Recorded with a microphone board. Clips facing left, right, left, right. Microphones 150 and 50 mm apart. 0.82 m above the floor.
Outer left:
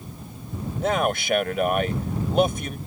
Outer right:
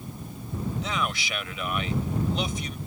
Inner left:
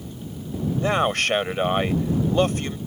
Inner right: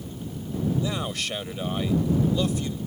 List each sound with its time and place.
0.8 s a man speaking: 55° left (ahead or behind)